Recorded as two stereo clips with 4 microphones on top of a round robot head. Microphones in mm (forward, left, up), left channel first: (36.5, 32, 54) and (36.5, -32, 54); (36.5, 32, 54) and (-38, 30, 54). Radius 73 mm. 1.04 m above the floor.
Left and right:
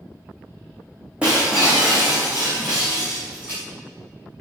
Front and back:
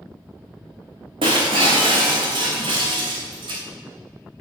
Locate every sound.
1.2 s breaking glass: 165° right, 3.5 m